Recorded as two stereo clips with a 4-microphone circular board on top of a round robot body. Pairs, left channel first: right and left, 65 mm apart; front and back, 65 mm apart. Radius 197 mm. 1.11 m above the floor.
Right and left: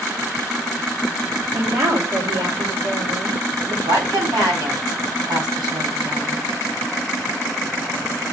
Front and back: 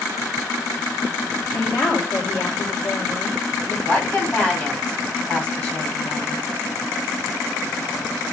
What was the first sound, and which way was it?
A woman speaking, 45° left.